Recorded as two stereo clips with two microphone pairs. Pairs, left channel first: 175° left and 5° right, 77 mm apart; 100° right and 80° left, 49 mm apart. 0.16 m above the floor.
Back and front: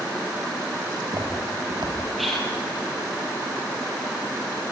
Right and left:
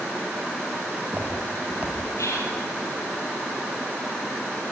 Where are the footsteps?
20° left, 5.5 m; by 2.0 s 25° left, 4.5 m.